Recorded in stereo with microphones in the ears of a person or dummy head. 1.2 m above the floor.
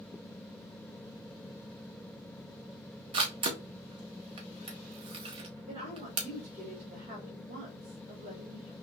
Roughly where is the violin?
I don't hear a violin.